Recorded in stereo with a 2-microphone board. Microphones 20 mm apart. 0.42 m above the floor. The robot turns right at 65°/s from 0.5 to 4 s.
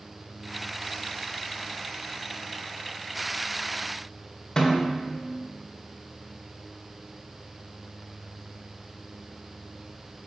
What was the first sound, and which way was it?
A snare drum, 35° left (ahead or behind).